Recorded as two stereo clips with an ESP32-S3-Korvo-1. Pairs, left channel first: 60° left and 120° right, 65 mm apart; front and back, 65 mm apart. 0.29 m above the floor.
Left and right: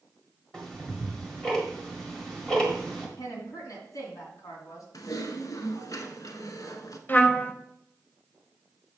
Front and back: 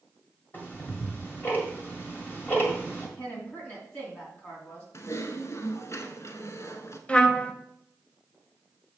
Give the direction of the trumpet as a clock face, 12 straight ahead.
10 o'clock.